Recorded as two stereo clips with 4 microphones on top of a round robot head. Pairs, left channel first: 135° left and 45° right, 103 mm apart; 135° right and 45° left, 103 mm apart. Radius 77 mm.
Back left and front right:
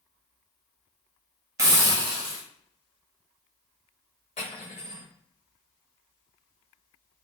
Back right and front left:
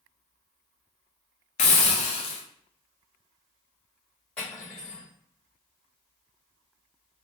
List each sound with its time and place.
1.6 s a hiss: 110° right, 0.5 m
4.4 s cutlery clinking: 150° left, 1.2 m